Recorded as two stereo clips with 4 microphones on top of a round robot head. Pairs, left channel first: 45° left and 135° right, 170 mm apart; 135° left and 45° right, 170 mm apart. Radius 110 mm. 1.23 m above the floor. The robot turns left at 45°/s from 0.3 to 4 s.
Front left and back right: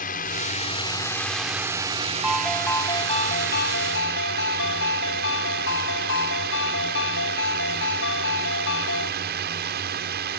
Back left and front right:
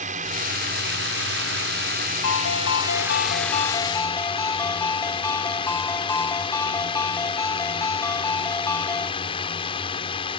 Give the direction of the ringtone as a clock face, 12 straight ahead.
7 o'clock.